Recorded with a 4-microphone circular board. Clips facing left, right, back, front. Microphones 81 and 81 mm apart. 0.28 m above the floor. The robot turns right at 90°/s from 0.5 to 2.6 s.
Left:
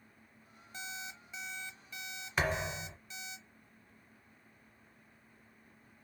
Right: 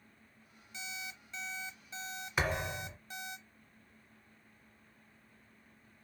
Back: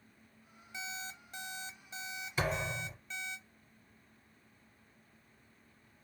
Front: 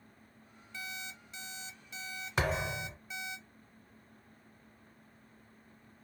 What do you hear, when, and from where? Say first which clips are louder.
0.7 s an alarm clock: left 1 dB, back 1 dB; 115° left, 0.6 m; by 3.4 s 75° right, 0.6 m
2.4 s a thud: left 1 dB, front 2 dB; 5° right, 1.3 m; by 3.0 s 15° left, 1.3 m